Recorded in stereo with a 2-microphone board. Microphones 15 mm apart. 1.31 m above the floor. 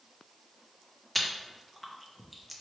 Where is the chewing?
Centre (ahead or behind), 0.6 m.